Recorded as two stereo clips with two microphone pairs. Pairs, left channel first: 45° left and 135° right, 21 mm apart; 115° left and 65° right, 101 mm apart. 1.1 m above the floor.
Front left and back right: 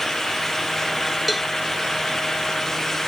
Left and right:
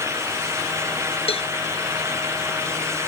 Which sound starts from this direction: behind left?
A cowbell, at 1.3 s.